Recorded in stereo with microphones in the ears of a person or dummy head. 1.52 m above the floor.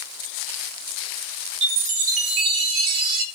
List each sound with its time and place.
1.6 s a chime: 60° right (ahead or behind), 0.7 m